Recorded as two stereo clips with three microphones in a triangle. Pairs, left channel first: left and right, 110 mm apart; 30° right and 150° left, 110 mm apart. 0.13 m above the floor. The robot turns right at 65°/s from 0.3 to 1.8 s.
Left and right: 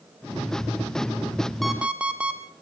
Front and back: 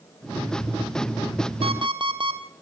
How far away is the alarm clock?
About 1.9 m.